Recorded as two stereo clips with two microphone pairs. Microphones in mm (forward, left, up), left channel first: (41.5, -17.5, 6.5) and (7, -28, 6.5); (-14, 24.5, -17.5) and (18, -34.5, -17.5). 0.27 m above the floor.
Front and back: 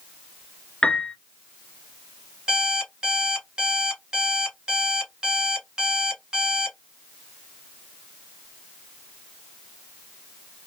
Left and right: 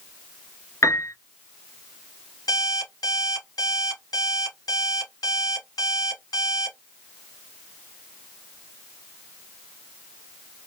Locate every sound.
0.8 s a piano: 75° left, 0.8 m
2.5 s an alarm clock: 130° left, 1.4 m